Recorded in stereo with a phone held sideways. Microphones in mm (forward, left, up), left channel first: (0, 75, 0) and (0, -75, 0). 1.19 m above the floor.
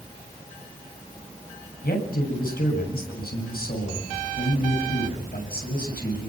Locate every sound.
1.8 s a man speaking: 85° left, 8 m